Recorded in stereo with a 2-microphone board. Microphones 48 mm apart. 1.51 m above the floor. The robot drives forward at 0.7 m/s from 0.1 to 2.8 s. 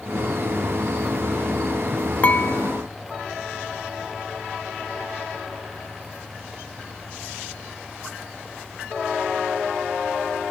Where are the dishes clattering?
40° left (ahead or behind); by 2.8 s 35° left (ahead or behind).